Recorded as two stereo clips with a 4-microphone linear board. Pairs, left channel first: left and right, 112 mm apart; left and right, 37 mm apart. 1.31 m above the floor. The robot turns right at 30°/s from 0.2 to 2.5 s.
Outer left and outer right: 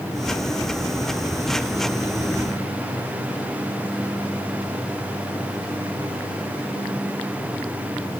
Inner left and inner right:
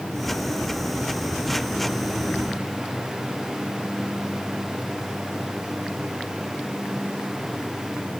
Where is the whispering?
No whispering in this recording.